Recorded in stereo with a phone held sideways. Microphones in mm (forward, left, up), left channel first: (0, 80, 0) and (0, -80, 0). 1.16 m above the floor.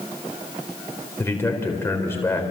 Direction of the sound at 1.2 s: 15° left (ahead or behind).